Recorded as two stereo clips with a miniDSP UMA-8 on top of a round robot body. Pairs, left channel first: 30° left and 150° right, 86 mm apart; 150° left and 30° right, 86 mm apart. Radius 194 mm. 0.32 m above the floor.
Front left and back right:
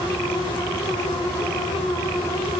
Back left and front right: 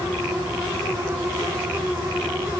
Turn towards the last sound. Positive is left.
No sound to turn to.